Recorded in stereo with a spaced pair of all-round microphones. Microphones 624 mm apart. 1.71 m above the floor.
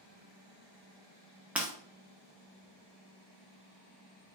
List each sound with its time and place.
1.6 s breaking glass: centre (ahead or behind), 1.1 m